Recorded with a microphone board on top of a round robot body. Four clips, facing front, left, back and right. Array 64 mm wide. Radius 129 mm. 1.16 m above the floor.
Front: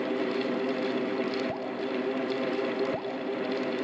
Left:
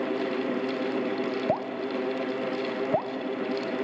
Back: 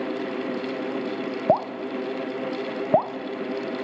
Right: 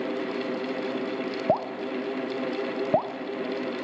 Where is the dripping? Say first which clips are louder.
Right 2 dB, back 9 dB; 170° right, 0.6 m.